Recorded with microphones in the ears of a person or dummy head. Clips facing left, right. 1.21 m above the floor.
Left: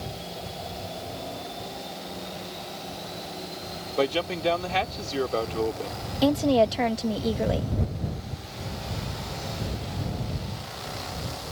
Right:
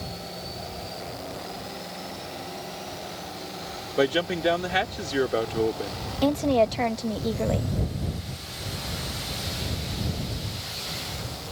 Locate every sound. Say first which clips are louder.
4.0 s a man speaking: right 2 dB; 5° right (ahead or behind)
6.2 s a woman speaking: left 1 dB; 15° left (ahead or behind)